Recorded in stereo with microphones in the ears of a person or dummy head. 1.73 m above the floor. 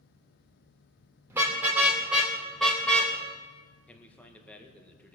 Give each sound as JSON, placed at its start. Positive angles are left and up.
{"t": 1.3, "sound": "a car horn", "side_deg": -15, "distance_m": 3.0}
{"t": 3.9, "sound": "a man speaking", "side_deg": 5, "distance_m": 1.9}